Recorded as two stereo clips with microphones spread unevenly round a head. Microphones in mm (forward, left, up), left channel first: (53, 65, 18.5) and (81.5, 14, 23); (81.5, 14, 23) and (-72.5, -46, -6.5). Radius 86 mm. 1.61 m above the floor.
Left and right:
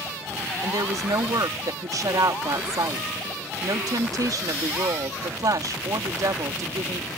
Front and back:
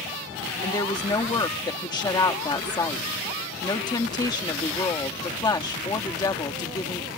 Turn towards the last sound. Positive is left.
turn(degrees=-45)